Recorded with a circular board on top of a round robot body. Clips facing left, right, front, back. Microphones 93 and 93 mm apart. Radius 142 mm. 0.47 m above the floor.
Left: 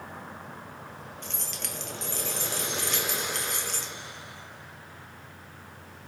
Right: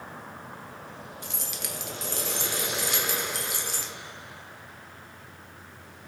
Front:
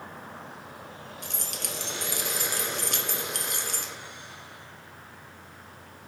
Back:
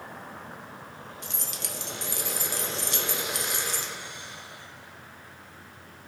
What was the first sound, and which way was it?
Keys jangling, 10° right.